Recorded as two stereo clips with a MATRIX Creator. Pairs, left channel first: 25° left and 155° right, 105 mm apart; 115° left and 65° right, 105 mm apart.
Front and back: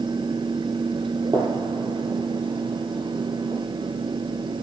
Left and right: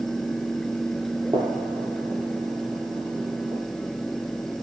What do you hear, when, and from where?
1.3 s a gunshot: 110° right, 10 m